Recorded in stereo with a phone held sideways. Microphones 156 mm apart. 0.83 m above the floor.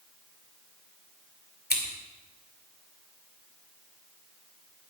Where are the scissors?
80° left, 2.5 m.